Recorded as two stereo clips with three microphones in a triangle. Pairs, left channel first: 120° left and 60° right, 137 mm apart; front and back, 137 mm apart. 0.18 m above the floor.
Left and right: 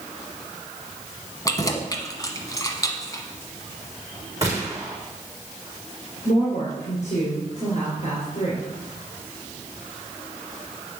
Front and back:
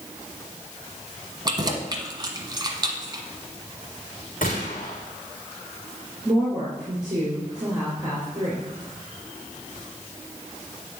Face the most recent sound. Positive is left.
turn(degrees=125)